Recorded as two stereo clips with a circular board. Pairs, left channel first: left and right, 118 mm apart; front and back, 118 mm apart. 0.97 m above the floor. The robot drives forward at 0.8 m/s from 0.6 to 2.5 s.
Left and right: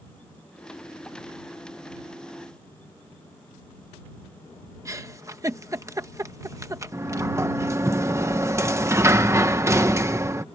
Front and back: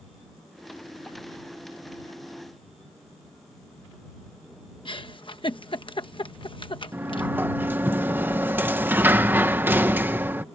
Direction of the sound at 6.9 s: 125° right.